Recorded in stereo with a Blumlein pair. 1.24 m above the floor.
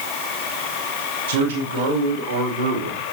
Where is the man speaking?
55° right, 3 m; by 3.0 s 75° right, 2 m.